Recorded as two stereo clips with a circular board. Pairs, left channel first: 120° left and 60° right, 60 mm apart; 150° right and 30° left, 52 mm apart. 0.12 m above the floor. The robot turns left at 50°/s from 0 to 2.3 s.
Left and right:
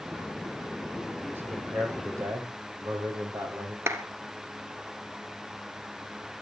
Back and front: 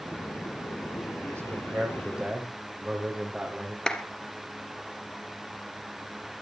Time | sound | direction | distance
1.3 | a man speaking | straight ahead | 5 m
3.9 | a clap | 80° right | 2 m